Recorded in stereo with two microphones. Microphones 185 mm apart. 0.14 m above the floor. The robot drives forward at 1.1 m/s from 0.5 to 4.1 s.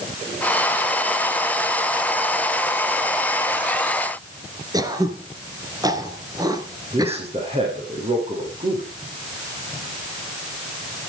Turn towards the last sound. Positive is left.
turn(degrees=-35)  # may be behind; listen again after turning